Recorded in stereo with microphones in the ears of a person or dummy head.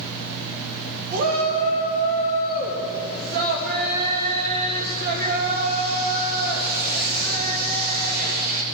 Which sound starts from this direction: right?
A shout, at 1.1 s.